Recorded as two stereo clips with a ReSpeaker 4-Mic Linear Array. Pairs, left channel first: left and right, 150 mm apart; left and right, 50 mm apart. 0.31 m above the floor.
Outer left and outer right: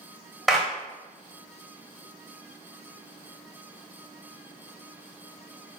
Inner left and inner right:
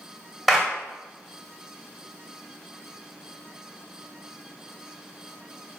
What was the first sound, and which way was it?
A clap, centre (ahead or behind).